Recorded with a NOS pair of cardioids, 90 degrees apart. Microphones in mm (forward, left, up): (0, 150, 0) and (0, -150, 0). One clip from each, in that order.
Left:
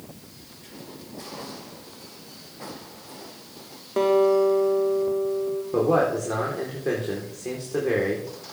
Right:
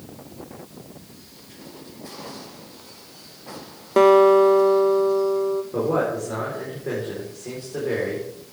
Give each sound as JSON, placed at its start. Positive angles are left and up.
{"t": 4.0, "sound": "a guitar", "azimuth_deg": -45, "distance_m": 1.2}
{"t": 5.7, "sound": "a man speaking", "azimuth_deg": 35, "distance_m": 4.0}